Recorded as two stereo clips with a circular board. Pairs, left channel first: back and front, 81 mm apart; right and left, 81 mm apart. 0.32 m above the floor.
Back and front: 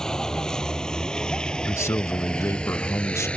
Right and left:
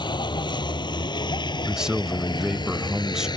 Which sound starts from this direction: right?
A vehicle, at 0.0 s.